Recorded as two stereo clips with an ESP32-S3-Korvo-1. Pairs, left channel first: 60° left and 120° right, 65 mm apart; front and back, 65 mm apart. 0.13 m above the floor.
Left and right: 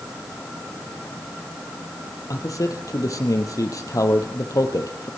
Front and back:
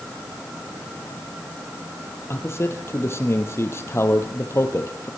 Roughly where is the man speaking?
Ahead left.